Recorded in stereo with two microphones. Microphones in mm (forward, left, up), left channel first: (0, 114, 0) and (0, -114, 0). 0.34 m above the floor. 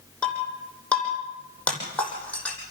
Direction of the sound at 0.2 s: 5° left (ahead or behind).